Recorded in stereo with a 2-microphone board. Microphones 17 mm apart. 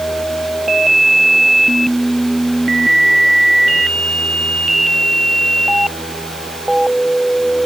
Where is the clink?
No clink in this recording.